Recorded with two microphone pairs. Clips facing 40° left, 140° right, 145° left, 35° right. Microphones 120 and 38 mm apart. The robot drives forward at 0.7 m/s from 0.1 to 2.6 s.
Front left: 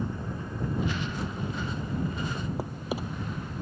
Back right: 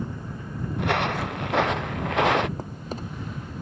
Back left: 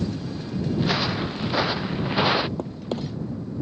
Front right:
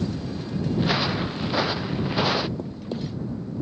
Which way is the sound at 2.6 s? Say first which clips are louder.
Front left 1 dB, back left 2 dB; 120° left.